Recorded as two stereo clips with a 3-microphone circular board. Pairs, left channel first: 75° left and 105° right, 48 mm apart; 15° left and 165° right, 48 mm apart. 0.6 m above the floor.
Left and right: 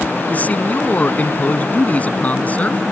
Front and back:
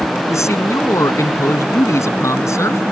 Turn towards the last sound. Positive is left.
turn(degrees=20)